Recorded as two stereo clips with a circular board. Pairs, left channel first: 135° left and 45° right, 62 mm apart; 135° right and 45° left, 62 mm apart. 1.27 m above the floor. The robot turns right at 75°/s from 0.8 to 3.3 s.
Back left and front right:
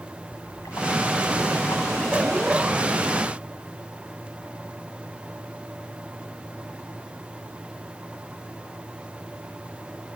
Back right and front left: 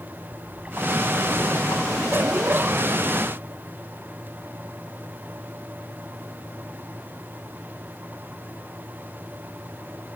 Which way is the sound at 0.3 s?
115° left.